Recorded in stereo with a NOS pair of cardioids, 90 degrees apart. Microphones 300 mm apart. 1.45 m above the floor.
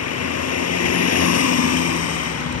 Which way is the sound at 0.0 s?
50° left.